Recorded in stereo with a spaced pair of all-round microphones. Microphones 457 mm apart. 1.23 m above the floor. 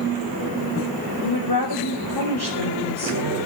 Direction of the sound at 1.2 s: 55° left (ahead or behind).